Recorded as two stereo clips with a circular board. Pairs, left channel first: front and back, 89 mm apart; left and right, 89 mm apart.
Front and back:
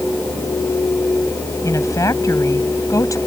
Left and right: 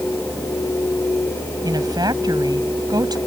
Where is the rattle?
No rattle in this recording.